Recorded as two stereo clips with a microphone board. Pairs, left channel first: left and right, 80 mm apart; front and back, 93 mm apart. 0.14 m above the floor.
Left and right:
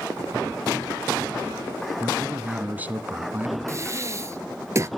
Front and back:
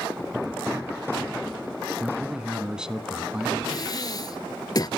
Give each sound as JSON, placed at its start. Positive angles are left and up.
{"t": 2.0, "sound": "a man speaking", "azimuth_deg": -110, "distance_m": 1.1}
{"t": 3.7, "sound": "breathing", "azimuth_deg": -40, "distance_m": 1.0}